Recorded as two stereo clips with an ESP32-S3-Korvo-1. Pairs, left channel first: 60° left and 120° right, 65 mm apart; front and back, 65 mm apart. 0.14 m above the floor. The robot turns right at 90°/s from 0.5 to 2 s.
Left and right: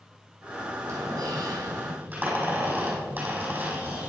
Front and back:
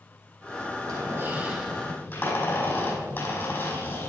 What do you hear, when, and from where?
0.8 s a squeak: 160° right, 4.5 m; by 4.1 s 55° right, 4.5 m